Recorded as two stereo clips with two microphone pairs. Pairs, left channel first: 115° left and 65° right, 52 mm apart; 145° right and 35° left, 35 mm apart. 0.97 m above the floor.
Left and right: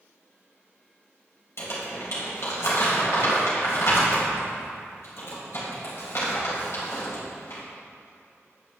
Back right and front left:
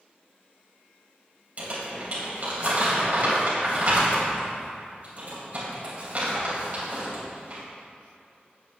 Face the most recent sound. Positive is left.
turn(degrees=85)